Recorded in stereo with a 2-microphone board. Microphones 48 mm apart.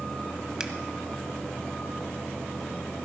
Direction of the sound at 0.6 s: 15° right (ahead or behind).